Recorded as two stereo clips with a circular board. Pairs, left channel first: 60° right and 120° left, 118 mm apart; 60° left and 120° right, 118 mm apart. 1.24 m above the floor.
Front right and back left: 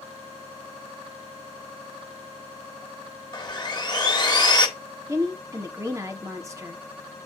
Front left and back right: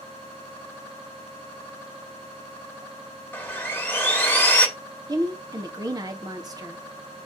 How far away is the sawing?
About 1.2 m.